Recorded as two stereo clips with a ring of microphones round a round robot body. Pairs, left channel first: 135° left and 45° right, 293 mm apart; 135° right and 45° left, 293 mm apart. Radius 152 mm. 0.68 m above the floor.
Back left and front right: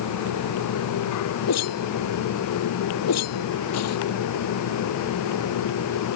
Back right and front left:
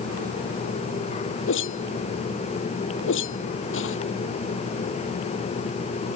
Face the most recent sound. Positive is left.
turn(degrees=175)